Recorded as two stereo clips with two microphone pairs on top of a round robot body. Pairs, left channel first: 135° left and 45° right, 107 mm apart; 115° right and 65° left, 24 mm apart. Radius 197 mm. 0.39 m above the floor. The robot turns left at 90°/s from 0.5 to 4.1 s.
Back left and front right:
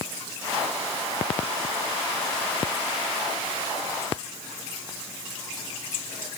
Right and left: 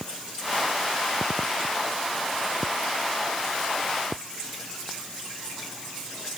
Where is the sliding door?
I don't hear a sliding door.